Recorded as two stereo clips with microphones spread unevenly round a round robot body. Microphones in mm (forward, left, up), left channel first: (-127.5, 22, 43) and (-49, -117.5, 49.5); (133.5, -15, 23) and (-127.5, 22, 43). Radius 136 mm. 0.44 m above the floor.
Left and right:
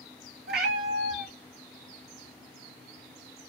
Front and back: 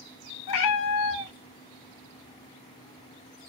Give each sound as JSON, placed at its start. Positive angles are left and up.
{"t": 0.5, "sound": "a cat meowing", "azimuth_deg": -15, "distance_m": 0.9}